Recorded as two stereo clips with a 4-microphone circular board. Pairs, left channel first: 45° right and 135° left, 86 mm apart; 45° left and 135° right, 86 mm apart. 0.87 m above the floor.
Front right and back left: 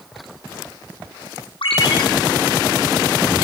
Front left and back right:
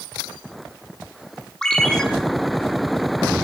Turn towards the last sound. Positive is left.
turn(degrees=-35)